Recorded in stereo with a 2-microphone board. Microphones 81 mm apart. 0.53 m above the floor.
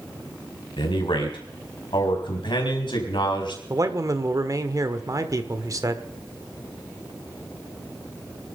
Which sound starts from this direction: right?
A man speaking, at 3.7 s.